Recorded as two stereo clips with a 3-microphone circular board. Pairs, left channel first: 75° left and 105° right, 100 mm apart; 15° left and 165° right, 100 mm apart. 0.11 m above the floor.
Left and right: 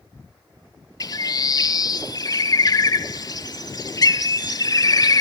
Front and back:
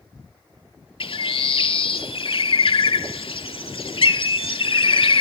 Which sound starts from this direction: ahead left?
A bird, at 1.0 s.